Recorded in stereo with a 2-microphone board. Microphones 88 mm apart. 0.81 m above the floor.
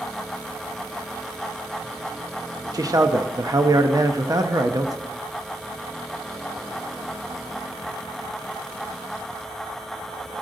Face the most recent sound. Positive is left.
turn(degrees=-45)  # may be behind; listen again after turning